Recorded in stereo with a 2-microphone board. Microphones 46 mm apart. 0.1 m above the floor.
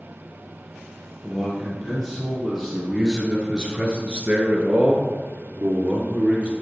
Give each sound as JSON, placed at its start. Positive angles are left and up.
{"t": 1.2, "sound": "a man speaking", "side_deg": 5, "distance_m": 3.0}